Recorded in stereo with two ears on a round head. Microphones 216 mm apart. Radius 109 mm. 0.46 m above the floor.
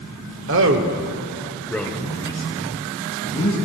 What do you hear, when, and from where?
0.5 s a man speaking: 55° right (ahead or behind), 1.3 m; by 3.5 s 35° left (ahead or behind), 3 m